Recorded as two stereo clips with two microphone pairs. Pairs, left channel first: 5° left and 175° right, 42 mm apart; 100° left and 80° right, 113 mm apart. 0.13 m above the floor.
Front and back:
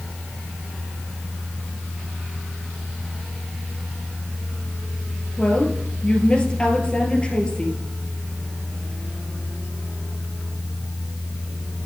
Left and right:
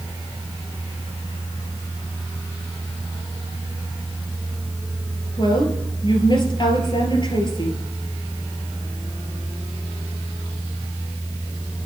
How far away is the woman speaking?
About 2 m.